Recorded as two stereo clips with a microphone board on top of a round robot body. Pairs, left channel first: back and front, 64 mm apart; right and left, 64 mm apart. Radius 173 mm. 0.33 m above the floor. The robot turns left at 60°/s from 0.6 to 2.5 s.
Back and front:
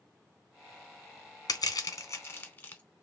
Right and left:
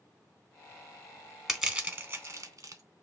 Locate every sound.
1.5 s crushing: straight behind, 1.0 m; by 2.8 s 120° left, 1.0 m